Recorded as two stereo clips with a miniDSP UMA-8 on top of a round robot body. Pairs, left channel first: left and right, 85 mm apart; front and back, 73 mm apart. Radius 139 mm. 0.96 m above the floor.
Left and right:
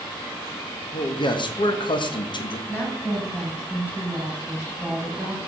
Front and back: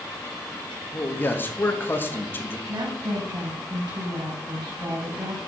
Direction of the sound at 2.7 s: 160° left.